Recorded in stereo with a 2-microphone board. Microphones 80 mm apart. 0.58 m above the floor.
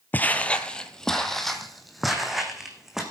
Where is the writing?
I don't hear writing.